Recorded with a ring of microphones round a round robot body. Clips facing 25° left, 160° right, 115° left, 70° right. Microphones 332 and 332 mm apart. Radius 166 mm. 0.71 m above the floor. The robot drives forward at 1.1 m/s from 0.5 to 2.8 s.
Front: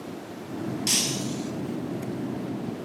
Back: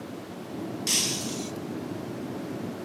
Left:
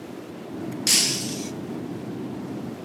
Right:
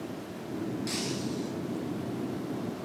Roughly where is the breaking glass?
Left.